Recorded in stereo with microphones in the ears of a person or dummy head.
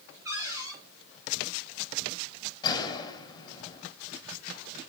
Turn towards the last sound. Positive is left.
turn(degrees=25)  # may be behind; listen again after turning